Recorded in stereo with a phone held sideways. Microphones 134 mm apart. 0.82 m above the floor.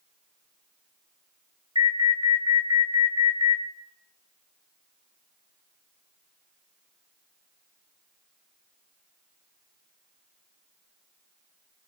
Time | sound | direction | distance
1.8 | an alarm | 35° right (ahead or behind) | 1.9 m